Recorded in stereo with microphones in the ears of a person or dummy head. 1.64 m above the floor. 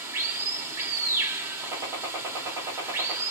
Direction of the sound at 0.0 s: 15° right (ahead or behind).